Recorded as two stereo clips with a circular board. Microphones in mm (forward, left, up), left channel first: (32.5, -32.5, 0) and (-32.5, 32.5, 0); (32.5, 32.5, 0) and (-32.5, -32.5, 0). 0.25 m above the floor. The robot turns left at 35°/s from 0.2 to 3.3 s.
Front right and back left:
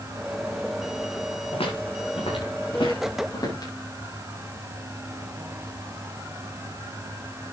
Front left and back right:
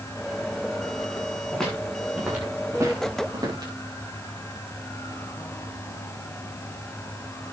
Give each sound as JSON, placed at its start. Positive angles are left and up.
{"t": 1.5, "sound": "footsteps", "azimuth_deg": -35, "distance_m": 6.5}